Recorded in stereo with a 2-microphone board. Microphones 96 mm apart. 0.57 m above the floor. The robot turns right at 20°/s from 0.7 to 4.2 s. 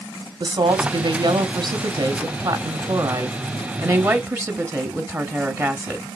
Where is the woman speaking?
105° right, 1.1 m; by 6.1 s 35° right, 1.1 m.